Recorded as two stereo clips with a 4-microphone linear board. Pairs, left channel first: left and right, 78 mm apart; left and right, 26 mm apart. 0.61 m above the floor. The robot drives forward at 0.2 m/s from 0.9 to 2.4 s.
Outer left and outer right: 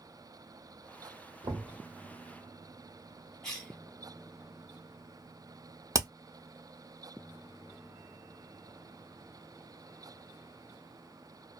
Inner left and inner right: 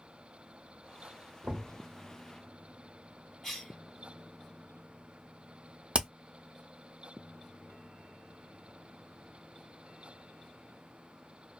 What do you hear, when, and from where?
1.4 s knocking: 75° right (ahead or behind), 1.1 m
3.4 s a cough: 5° left (ahead or behind), 1.5 m
5.9 s hammering: 45° right (ahead or behind), 0.5 m